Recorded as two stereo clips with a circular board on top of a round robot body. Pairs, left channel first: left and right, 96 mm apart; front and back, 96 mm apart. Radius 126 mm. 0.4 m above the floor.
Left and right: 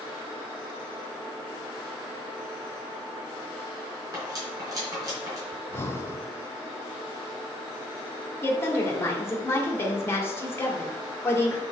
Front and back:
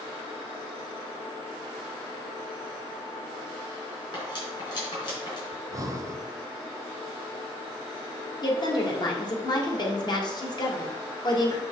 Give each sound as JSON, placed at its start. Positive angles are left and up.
{"t": 4.1, "sound": "cutlery clinking", "azimuth_deg": -40, "distance_m": 3.5}
{"t": 5.5, "sound": "breathing", "azimuth_deg": 145, "distance_m": 1.1}
{"t": 8.4, "sound": "a woman speaking", "azimuth_deg": 30, "distance_m": 2.0}